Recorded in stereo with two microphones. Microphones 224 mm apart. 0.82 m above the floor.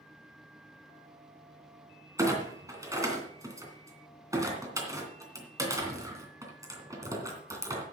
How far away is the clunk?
About 2.5 m.